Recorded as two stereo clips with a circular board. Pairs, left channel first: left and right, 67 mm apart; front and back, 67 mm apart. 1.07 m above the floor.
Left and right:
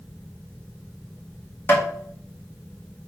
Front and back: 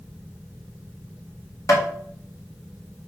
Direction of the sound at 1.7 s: 35° left.